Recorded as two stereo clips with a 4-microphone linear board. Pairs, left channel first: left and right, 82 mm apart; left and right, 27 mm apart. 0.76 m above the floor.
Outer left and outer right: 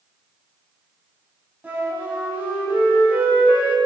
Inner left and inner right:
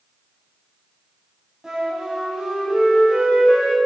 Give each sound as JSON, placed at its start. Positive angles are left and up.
{"t": 1.6, "sound": "a flute", "side_deg": -20, "distance_m": 4.0}